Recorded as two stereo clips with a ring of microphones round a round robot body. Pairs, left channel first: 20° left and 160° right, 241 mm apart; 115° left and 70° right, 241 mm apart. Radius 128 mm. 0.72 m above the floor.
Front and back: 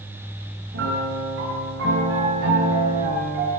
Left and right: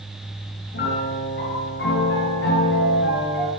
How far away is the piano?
About 7.5 m.